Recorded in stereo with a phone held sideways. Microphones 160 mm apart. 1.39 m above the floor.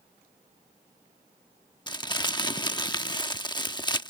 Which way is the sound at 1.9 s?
25° left (ahead or behind).